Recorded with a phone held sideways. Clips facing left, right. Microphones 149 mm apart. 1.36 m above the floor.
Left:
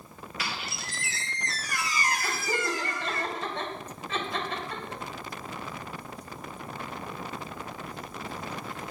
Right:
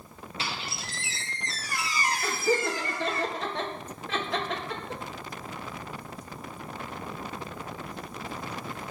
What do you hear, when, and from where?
0.4 s a squeak: 25° right (ahead or behind), 1.2 m
2.2 s laughter: 80° right, 1.9 m